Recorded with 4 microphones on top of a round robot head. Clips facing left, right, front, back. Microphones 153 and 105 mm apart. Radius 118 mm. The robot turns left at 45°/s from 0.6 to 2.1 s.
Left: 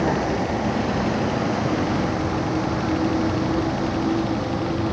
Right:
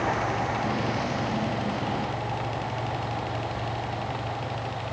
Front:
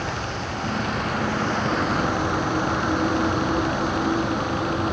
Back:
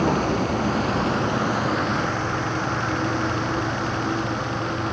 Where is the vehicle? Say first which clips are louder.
Left 6 dB, back 8 dB; 140° left; by 4.9 s 75° left.